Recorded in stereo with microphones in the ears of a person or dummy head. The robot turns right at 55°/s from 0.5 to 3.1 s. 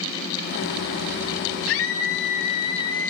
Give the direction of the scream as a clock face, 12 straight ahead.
9 o'clock.